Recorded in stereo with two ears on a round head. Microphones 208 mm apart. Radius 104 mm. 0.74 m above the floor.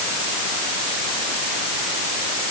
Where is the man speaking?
I don't hear a man speaking.